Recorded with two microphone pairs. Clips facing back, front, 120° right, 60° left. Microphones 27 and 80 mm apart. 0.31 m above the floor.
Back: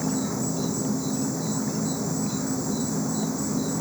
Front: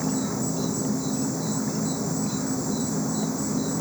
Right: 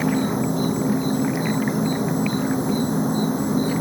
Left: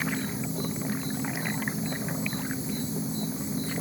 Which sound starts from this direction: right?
An insect, at 0.0 s.